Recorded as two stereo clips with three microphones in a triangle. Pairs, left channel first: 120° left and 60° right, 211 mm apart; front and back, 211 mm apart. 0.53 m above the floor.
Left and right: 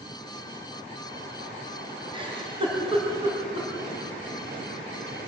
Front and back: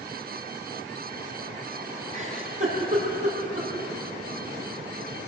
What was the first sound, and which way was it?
A giggle, 125° right.